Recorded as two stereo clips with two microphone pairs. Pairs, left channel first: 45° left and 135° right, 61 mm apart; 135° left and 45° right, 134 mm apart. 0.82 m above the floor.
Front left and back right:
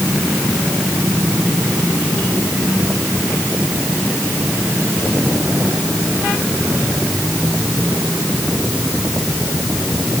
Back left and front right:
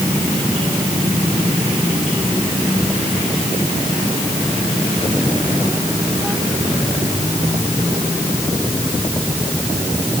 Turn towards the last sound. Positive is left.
No sound to turn to.